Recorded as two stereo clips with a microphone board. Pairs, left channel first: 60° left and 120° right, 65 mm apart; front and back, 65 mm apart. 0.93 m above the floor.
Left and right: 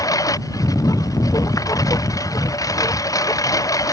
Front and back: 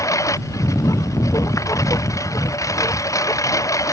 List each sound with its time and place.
0.0 s a lawn mower: 35° left